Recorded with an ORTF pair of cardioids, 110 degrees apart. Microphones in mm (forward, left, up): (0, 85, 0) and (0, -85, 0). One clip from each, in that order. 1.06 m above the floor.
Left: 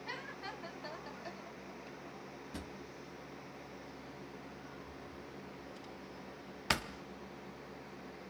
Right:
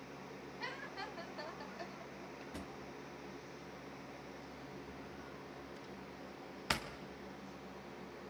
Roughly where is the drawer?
Ahead.